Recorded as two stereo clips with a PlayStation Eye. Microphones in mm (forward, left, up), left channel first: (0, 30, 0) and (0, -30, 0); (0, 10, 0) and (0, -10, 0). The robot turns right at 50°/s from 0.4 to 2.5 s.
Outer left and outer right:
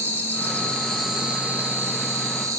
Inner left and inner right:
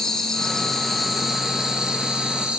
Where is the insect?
150° left, 1.2 m; by 2.6 s 105° right, 1.2 m.